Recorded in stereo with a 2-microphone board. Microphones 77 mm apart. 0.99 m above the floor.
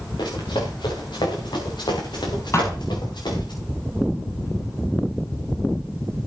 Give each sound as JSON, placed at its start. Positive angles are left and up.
{"t": 0.2, "sound": "running footsteps", "side_deg": 75, "distance_m": 6.0}
{"t": 2.5, "sound": "a thud", "side_deg": 40, "distance_m": 5.5}